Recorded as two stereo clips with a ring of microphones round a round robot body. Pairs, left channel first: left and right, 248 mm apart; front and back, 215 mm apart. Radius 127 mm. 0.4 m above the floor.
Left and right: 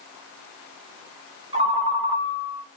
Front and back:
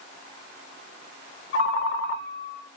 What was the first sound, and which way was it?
A ringtone, 25° right.